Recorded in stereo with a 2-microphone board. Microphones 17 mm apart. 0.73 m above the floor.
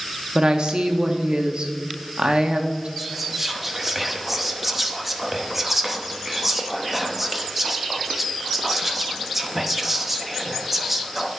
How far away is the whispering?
About 0.8 m.